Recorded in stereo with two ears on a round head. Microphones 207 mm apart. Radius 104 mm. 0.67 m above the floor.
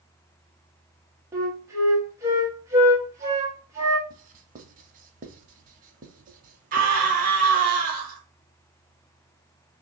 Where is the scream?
35° right (ahead or behind), 0.9 m.